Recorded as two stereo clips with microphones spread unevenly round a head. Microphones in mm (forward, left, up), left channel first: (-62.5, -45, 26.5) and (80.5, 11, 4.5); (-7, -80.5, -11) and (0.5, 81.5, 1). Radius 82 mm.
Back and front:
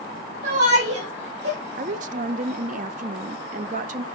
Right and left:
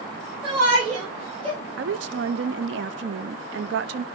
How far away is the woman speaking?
About 0.7 m.